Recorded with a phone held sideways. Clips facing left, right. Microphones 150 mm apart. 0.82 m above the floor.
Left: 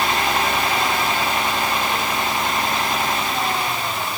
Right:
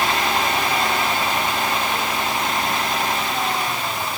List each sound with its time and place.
Only background noise.